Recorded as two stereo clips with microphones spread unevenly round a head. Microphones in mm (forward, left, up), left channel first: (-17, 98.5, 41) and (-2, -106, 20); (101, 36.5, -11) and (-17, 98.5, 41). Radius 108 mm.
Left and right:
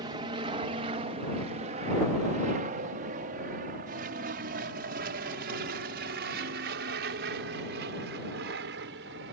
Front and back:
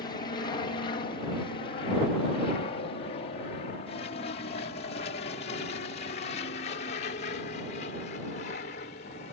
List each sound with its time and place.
0.0 s an aircraft: 25° right; by 9.3 s 50° right